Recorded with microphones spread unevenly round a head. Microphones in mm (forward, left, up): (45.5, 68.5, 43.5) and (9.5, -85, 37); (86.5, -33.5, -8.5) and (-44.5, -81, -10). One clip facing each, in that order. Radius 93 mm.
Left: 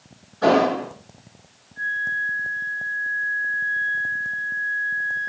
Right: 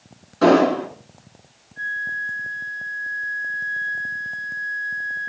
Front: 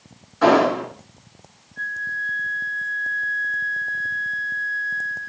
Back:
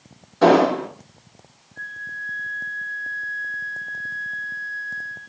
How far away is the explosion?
About 9 m.